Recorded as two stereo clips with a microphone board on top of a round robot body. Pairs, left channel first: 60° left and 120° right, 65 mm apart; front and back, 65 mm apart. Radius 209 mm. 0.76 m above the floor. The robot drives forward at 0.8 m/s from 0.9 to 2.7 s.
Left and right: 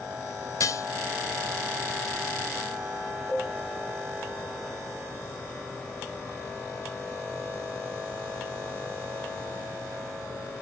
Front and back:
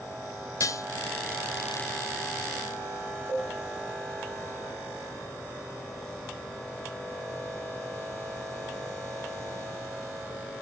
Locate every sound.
0.6 s dishes clattering: 30° left, 0.8 m
3.3 s a cowbell: 150° right, 3 m